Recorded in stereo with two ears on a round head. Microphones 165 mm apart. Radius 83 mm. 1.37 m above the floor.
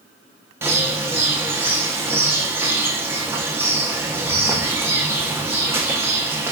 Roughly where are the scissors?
I don't hear scissors.